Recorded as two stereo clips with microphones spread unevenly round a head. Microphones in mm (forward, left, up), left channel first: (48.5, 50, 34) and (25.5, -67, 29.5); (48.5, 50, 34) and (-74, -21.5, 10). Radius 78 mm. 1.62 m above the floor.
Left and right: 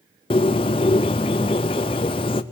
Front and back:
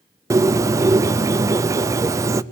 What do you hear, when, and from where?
0.3 s a bird: 140° left, 0.5 m